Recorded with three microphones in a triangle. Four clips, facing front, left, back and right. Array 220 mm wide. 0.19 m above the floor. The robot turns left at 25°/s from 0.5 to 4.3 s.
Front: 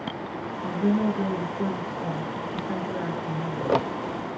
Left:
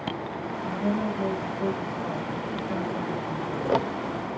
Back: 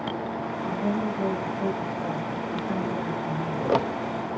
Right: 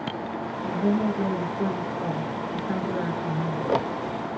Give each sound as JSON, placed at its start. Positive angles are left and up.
{"t": 0.6, "sound": "a woman speaking", "azimuth_deg": -30, "distance_m": 2.5}